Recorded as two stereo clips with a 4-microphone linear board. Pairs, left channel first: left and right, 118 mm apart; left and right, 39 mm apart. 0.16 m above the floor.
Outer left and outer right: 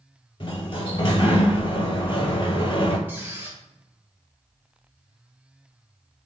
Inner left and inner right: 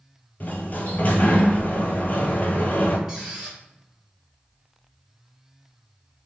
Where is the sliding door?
45° left (ahead or behind), 0.5 m.